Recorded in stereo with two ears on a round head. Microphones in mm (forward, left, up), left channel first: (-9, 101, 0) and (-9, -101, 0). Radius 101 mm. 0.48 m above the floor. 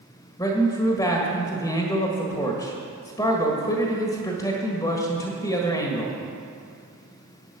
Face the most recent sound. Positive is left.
turn(degrees=15)  # may be behind; listen again after turning